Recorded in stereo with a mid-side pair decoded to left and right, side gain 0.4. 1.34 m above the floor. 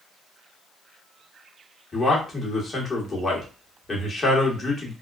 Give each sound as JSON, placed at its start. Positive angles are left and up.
{"t": 1.9, "sound": "a man speaking", "azimuth_deg": 35, "distance_m": 1.5}